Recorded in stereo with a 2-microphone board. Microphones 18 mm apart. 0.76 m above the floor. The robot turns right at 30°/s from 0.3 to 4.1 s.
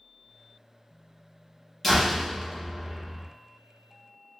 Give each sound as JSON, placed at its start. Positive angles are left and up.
{"t": 1.8, "sound": "a door slam", "azimuth_deg": 170, "distance_m": 1.2}